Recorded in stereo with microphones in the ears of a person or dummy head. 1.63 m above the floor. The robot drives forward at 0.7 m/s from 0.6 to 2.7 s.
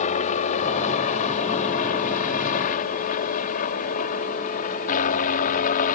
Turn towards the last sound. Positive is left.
turn(degrees=55)  # may be behind; listen again after turning